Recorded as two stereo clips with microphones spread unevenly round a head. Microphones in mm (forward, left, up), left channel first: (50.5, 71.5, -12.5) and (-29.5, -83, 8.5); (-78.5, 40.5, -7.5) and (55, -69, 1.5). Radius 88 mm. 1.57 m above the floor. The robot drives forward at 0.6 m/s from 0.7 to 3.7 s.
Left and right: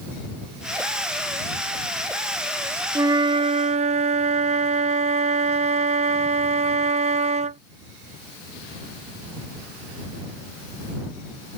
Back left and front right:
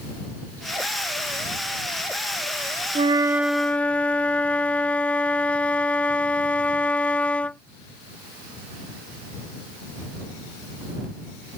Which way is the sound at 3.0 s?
65° right.